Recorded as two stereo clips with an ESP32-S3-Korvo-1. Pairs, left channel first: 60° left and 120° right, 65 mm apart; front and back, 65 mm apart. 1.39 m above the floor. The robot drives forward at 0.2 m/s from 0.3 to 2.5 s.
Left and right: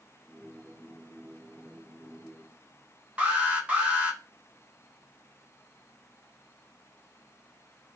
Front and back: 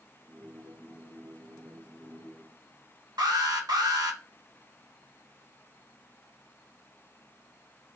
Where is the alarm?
170° left, 0.9 m.